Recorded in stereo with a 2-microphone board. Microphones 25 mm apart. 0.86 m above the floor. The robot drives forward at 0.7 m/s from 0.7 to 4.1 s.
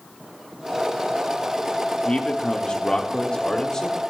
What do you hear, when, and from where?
2.0 s a man speaking: 40° left (ahead or behind), 1.1 m; by 4.0 s 25° left (ahead or behind), 1.9 m